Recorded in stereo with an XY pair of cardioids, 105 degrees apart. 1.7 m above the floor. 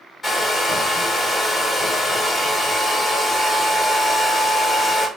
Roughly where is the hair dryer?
Ahead left.